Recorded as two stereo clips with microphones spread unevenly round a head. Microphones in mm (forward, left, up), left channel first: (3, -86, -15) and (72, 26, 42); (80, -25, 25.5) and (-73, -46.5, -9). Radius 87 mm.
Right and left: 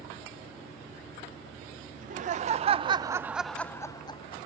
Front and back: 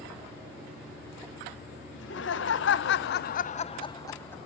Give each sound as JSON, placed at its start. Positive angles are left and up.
{"t": 1.9, "sound": "laughter", "azimuth_deg": 35, "distance_m": 1.1}